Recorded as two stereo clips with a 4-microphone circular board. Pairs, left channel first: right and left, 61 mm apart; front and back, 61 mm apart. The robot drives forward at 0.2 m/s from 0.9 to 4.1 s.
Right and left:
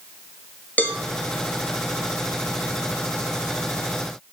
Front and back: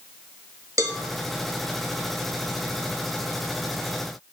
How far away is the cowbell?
About 0.7 m.